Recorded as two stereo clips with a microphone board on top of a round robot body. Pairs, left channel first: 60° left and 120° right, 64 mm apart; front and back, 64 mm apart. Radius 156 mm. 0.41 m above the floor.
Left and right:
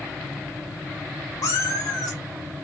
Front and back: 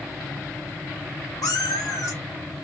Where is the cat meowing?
30° left, 2.0 m; by 2.6 s 55° left, 2.5 m.